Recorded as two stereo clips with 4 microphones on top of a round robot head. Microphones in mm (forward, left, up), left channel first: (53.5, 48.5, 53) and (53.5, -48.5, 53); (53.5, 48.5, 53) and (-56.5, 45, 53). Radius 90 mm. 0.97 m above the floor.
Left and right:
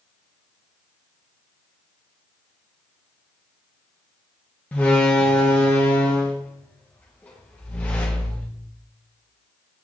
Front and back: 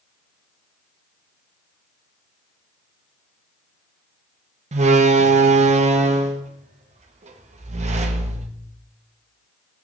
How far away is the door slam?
About 0.8 m.